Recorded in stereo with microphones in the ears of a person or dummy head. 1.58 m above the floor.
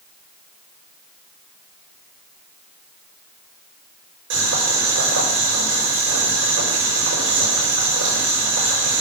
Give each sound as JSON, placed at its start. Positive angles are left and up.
{"t": 4.3, "sound": "boiling", "side_deg": -85, "distance_m": 5.5}